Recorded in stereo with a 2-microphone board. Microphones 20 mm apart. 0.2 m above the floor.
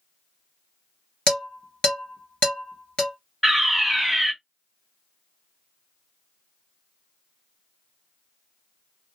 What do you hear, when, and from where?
1.3 s dishes clattering: 70° left (ahead or behind), 2 m
3.4 s a fire alarm: 10° left (ahead or behind), 2.0 m